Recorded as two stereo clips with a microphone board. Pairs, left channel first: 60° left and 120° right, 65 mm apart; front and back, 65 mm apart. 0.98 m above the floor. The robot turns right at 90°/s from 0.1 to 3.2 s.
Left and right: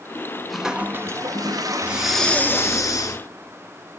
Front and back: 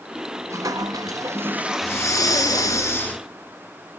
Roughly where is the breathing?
Ahead right.